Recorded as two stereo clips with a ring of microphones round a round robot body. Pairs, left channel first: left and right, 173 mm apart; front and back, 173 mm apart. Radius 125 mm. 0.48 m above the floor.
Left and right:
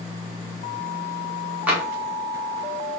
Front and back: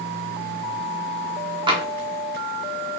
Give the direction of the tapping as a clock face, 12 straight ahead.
5 o'clock.